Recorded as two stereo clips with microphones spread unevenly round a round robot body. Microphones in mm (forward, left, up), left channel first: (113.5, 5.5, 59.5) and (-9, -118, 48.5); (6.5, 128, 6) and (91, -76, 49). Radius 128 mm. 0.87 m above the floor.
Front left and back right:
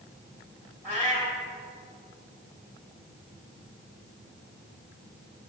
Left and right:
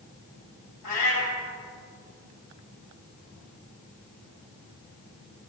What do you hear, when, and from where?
0.8 s a cat meowing: 115° left, 4.5 m